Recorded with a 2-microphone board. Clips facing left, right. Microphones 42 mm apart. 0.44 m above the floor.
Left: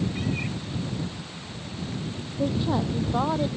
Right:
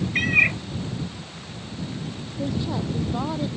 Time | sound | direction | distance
0.1 | a cat meowing | 75° right (ahead or behind) | ?
2.4 | a woman speaking | 20° left (ahead or behind) | ?